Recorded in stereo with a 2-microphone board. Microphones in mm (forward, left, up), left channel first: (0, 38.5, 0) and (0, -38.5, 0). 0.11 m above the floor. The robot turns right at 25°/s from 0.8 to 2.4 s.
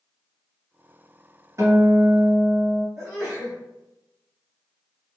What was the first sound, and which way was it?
A guitar, 40° right (ahead or behind).